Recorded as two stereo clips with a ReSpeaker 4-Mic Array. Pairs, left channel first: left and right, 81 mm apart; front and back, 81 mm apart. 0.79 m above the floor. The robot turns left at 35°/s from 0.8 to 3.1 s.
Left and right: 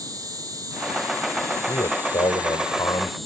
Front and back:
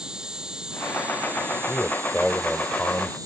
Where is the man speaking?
110° left; by 3.2 s 60° left.